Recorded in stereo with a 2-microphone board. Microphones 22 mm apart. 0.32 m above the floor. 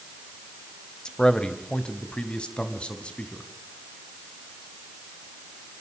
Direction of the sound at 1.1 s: 40° left (ahead or behind).